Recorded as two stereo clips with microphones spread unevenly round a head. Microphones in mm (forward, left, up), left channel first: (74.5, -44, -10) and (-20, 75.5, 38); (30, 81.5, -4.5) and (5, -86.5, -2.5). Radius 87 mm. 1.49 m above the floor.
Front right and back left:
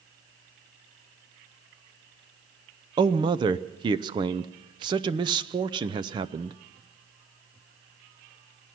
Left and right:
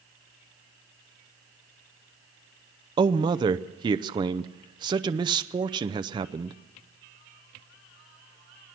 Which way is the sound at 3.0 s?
165° right.